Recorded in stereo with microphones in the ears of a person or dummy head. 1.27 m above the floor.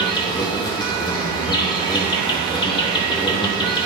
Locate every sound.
0.0 s an insect: 20° left (ahead or behind), 0.7 m